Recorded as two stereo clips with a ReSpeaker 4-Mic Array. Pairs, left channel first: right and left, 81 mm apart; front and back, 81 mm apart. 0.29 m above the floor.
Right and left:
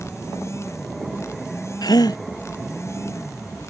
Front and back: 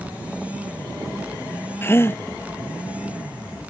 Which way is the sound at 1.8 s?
60° right.